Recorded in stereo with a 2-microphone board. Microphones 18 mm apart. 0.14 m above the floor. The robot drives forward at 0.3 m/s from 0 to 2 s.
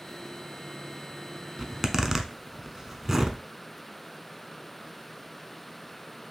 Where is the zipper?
25° right (ahead or behind), 0.6 m.